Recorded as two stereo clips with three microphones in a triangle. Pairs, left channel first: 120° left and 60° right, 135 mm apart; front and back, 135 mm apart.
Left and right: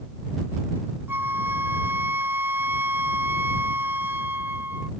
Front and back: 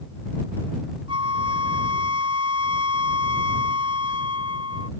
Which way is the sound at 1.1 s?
130° right.